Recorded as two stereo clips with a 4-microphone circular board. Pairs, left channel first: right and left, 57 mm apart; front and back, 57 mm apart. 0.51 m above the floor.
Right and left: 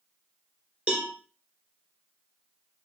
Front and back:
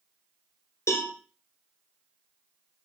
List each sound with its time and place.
0.9 s a cowbell: 25° left, 1.1 m